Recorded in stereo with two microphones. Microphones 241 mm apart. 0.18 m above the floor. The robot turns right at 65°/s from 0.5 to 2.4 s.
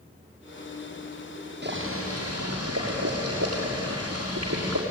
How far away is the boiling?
About 7 m.